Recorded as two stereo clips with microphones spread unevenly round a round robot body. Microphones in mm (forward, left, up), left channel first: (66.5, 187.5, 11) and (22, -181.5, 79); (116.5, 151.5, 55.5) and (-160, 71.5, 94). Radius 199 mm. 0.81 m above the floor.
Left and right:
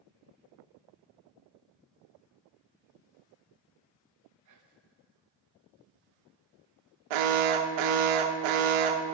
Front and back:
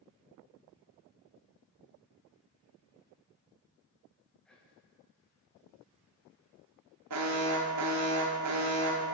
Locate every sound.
4.5 s whispering: 60° right, 1.1 m
7.1 s an alarm: 115° right, 0.5 m